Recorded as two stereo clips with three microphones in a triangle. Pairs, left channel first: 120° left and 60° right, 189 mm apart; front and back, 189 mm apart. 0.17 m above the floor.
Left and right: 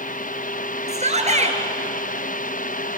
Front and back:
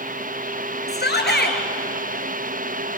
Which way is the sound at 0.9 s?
10° right.